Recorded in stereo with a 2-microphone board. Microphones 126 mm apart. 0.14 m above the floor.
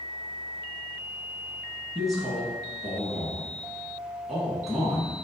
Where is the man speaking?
Centre (ahead or behind), 1.1 m.